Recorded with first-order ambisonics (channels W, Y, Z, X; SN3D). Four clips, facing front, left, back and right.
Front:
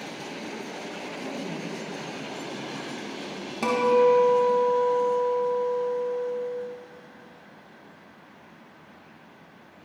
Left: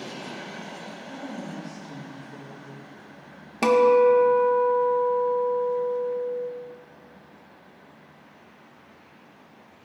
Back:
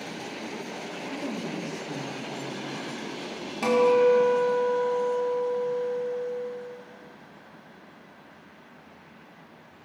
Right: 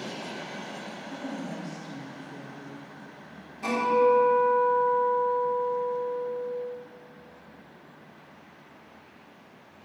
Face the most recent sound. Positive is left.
turn(degrees=85)